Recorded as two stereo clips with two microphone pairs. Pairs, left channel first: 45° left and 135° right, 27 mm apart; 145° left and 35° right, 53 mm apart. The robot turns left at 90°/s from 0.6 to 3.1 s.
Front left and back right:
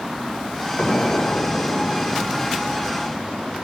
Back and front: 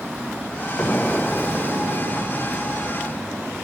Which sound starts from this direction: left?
An explosion, at 0.8 s.